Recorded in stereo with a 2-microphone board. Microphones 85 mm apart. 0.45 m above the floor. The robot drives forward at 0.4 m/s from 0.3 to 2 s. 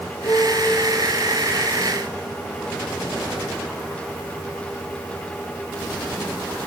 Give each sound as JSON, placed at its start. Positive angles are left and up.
{"t": 0.2, "sound": "a piano", "side_deg": 40, "distance_m": 1.9}